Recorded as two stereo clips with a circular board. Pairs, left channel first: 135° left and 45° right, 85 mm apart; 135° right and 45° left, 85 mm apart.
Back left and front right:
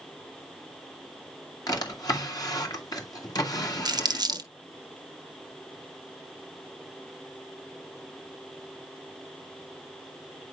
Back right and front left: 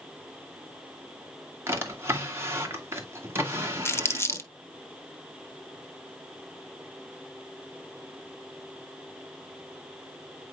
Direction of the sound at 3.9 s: 80° right.